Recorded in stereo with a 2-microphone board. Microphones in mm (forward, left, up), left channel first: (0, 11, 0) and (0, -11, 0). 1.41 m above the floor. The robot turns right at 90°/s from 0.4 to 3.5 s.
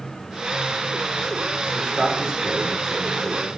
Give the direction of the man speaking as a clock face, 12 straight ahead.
4 o'clock.